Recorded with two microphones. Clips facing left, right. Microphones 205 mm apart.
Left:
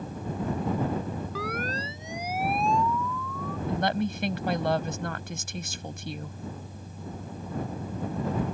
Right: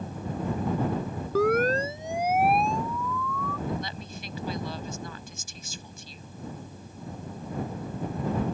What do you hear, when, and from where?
1.4 s a siren: 45° right (ahead or behind); by 3.6 s 65° right (ahead or behind)
3.7 s a woman speaking: 70° left (ahead or behind)